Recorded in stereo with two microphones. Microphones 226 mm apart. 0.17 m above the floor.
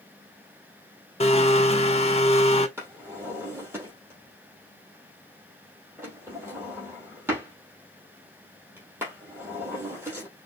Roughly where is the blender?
Left.